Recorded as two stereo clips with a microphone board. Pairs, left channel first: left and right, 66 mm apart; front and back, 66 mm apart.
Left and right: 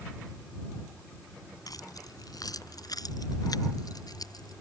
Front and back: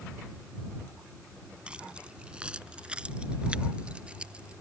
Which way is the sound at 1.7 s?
105° left.